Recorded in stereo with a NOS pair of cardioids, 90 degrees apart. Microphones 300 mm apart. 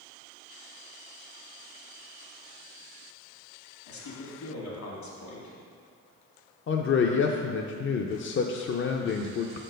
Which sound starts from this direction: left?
A man speaking, at 3.9 s.